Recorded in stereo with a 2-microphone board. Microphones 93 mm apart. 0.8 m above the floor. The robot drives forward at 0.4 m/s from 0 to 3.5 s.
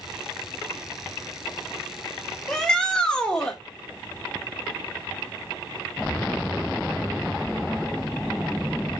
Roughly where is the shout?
Centre.